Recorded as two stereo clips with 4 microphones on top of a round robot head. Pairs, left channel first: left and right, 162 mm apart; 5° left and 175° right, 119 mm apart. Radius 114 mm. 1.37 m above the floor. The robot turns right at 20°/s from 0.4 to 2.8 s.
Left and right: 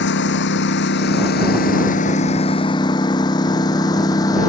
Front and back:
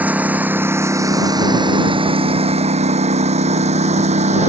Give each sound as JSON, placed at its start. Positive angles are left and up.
{"t": 0.0, "sound": "a lawn mower", "azimuth_deg": 105}